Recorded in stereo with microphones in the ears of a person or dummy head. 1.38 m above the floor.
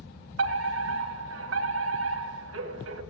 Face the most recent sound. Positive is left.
turn(degrees=-70)  # may be behind; listen again after turning